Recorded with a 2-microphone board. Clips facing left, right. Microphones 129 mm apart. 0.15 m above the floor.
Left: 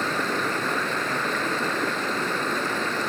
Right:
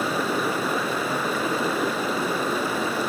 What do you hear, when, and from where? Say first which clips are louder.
0.0 s running water: right 2 dB; 10° right (ahead or behind), 2.5 m